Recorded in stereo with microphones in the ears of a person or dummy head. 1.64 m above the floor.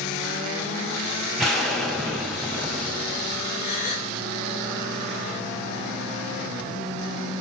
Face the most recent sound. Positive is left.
turn(degrees=55)  # may be behind; listen again after turning